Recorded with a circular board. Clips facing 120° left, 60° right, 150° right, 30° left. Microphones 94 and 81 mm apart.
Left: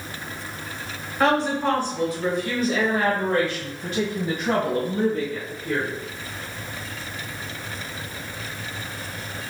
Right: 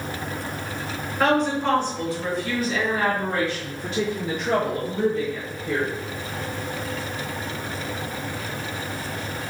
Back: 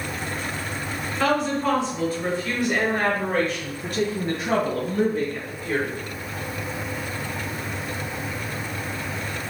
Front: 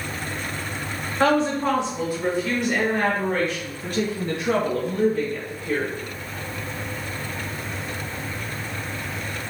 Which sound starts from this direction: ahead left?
A woman speaking, at 1.2 s.